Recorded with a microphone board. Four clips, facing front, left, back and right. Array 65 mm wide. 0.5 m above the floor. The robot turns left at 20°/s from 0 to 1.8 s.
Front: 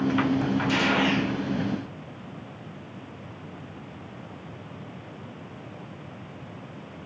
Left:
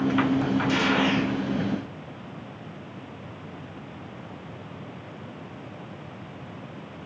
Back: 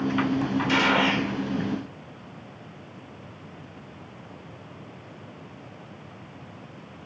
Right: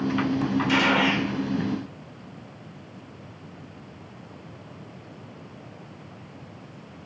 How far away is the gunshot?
About 2.0 m.